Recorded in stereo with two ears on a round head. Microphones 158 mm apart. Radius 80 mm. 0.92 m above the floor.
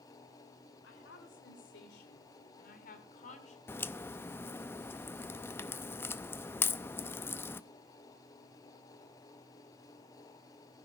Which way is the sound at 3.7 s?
15° left (ahead or behind).